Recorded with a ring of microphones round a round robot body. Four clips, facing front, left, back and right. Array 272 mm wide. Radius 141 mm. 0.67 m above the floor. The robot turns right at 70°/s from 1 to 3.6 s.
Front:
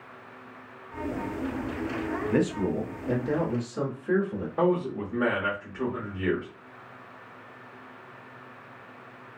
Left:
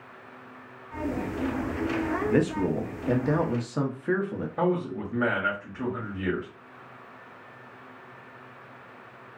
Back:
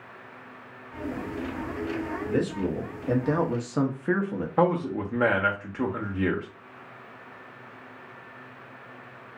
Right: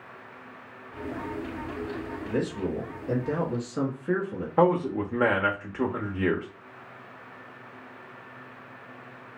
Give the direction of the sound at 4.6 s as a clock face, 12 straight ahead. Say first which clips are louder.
Right 5 dB, back 1 dB; 4 o'clock.